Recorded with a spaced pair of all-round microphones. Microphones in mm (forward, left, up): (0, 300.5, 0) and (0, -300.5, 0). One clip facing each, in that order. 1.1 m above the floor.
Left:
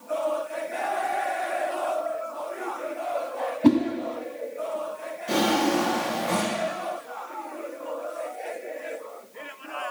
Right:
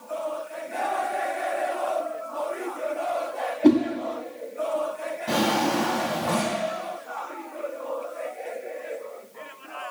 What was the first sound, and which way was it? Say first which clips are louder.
A whoosh: right 1 dB; 35° left (ahead or behind).